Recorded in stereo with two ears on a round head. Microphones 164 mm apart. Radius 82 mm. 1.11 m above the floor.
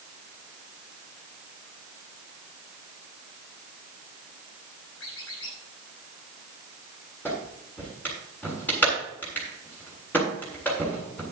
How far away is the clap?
About 7.5 m.